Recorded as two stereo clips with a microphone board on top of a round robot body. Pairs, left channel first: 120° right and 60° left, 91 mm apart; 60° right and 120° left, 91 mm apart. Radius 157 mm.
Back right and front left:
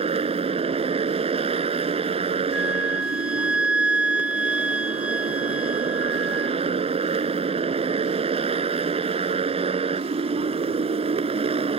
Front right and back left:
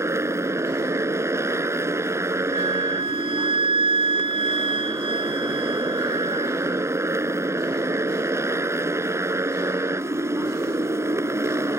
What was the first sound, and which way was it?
A motorcycle, 60° left.